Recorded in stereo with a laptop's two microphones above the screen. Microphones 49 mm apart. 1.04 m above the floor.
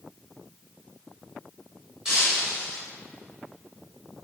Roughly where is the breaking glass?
Centre.